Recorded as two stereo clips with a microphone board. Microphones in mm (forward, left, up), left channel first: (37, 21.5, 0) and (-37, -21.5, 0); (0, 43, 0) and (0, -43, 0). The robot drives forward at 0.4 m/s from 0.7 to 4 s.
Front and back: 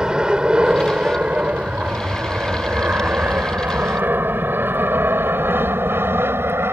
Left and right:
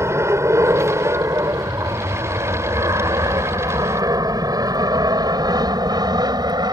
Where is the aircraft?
75° right; by 6.7 s 100° right.